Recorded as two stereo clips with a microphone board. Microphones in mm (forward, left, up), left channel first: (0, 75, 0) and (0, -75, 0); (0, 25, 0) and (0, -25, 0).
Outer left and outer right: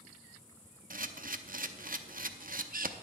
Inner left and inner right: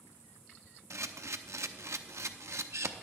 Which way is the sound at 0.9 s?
70° right (ahead or behind).